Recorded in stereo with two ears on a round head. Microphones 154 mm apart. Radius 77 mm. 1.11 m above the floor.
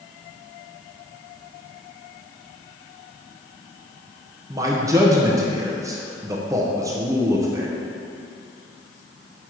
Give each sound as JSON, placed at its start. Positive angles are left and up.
{"t": 4.5, "sound": "a man speaking", "side_deg": -20, "distance_m": 0.6}